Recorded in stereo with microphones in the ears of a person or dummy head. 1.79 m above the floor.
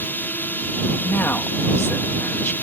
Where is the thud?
I don't hear a thud.